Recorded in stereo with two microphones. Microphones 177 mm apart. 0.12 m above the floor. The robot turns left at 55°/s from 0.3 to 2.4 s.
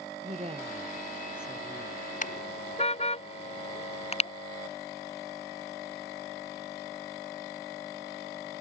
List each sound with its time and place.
0.2 s a woman speaking: 135° right; by 2.0 s 135° left
2.2 s a car horn: 45° left (ahead or behind); by 4.3 s 35° left (ahead or behind)